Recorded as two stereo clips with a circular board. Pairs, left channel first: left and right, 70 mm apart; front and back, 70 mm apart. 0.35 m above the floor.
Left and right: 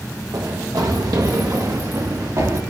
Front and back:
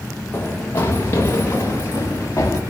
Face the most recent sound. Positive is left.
turn(degrees=-55)